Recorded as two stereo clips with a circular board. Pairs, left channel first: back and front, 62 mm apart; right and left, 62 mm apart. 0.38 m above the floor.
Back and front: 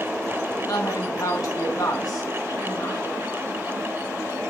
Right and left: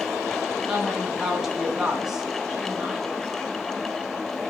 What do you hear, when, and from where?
0.7 s a woman speaking: 175° left, 4 m